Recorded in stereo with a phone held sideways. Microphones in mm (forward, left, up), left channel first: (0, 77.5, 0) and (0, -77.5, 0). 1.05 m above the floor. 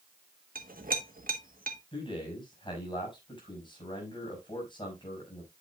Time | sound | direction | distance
0.6 | a clink | 70° right (ahead or behind) | 1.3 m
1.9 | a man speaking | 30° left (ahead or behind) | 5.5 m